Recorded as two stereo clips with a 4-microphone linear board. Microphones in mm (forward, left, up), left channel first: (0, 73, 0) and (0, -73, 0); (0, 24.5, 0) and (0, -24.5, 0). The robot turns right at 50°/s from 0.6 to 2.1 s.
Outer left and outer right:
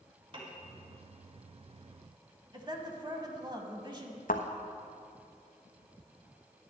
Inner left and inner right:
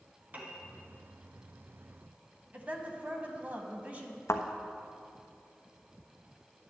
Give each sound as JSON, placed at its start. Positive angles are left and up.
{"t": 0.3, "sound": "a piano", "side_deg": -40, "distance_m": 1.7}
{"t": 2.5, "sound": "a woman speaking", "side_deg": -30, "distance_m": 1.1}
{"t": 4.3, "sound": "a thud", "side_deg": 75, "distance_m": 1.1}